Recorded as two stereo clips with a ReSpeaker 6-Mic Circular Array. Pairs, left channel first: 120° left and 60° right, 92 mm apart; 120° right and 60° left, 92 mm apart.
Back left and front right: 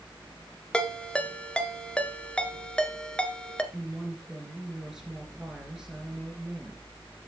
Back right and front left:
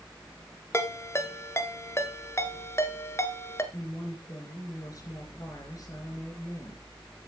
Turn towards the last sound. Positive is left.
turn(degrees=-140)